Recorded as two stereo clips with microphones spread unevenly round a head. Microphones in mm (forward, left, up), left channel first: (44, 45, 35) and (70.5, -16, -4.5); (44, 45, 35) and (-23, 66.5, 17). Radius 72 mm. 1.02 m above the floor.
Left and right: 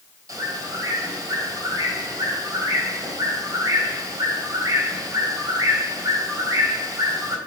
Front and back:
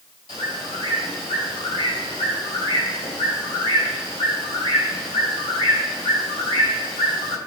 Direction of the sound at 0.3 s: 25° right.